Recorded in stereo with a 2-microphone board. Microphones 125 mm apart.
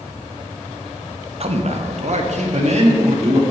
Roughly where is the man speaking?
Right.